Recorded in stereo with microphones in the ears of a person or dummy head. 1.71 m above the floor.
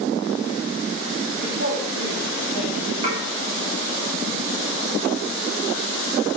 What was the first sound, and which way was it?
A woman speaking, 65° right (ahead or behind).